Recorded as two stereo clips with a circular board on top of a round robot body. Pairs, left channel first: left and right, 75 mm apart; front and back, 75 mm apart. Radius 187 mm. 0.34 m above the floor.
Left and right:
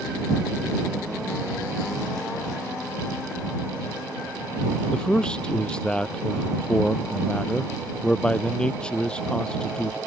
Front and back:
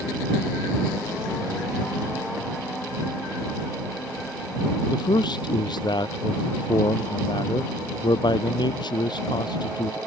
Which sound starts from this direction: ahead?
A man speaking, at 4.9 s.